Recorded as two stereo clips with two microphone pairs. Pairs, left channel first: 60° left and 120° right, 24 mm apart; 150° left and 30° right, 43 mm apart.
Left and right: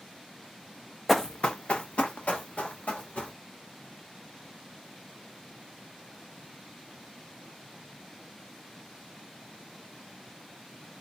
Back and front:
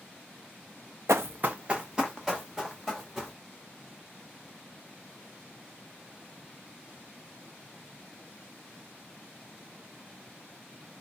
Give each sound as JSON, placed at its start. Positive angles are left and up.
{"t": 1.1, "sound": "running footsteps", "azimuth_deg": -30, "distance_m": 0.5}